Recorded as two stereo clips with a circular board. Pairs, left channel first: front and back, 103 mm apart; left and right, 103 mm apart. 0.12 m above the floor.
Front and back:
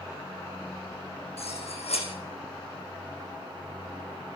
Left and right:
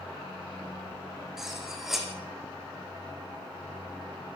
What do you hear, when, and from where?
1.4 s cutlery clinking: 5° right, 5 m